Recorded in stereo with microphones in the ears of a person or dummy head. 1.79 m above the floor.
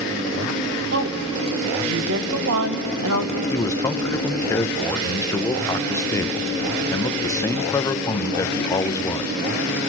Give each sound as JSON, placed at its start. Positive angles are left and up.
{"t": 0.9, "sound": "a woman speaking", "side_deg": -60, "distance_m": 1.9}
{"t": 3.5, "sound": "a man speaking", "side_deg": 15, "distance_m": 0.7}